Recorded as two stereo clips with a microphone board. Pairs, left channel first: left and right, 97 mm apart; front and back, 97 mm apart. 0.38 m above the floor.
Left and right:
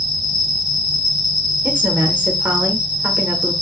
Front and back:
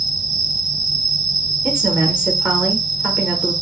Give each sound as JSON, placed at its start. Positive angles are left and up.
{"t": 0.0, "sound": "an insect", "azimuth_deg": 170, "distance_m": 1.6}
{"t": 1.6, "sound": "a woman speaking", "azimuth_deg": -120, "distance_m": 0.8}